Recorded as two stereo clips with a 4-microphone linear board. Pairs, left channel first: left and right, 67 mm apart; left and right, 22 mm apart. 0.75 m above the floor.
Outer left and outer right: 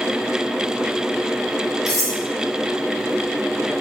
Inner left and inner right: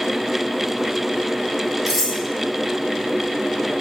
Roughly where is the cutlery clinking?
Centre.